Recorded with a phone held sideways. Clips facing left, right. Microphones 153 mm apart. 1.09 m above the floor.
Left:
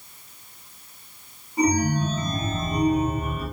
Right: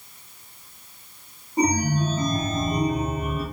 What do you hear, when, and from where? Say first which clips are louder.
1.6 s a chime: left 1 dB; 35° right (ahead or behind), 0.8 m